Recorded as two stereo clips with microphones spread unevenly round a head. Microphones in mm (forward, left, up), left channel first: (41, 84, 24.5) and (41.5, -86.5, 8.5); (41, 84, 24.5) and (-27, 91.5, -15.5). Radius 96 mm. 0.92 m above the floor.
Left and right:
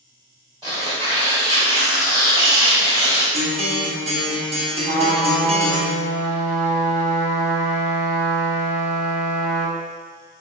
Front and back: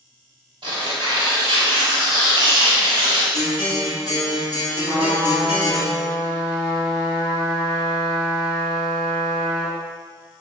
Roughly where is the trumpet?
Ahead right.